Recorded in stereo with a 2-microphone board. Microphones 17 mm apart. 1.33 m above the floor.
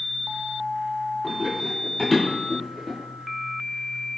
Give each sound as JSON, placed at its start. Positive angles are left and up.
{"t": 1.2, "sound": "running footsteps", "side_deg": 25, "distance_m": 1.8}